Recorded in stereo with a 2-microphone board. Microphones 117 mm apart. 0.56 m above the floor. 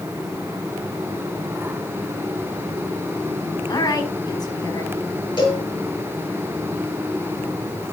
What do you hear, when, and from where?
3.7 s a woman speaking: 35° left (ahead or behind), 5.5 m
5.4 s a cowbell: 40° left (ahead or behind), 7.5 m